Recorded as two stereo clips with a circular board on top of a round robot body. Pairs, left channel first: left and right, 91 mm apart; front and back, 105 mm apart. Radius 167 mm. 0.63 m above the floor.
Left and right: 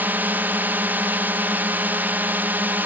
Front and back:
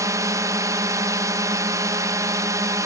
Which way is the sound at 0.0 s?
145° right.